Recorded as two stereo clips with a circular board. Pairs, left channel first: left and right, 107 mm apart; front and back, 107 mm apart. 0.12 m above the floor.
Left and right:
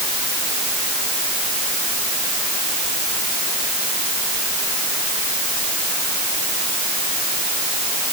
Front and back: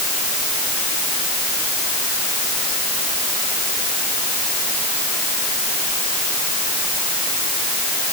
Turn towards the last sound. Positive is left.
No sound to turn to.